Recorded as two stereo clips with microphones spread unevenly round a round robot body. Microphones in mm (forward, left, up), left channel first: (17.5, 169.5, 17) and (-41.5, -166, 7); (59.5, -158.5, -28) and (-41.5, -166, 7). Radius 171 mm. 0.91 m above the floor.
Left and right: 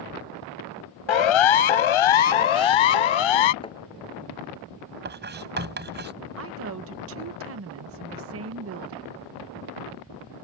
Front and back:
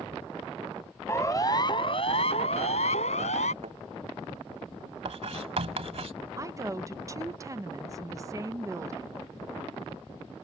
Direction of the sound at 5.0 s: 165° right.